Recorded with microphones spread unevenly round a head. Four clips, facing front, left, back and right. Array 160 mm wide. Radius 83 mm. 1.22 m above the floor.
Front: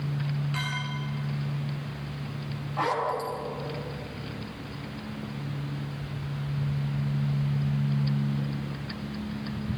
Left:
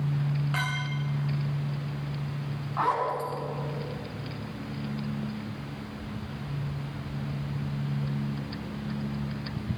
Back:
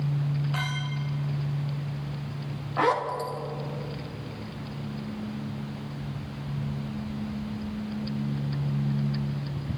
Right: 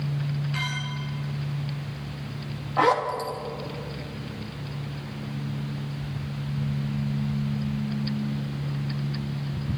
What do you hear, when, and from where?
0.5 s a clink: 145° left, 4 m
2.8 s a zipper: 120° right, 2.5 m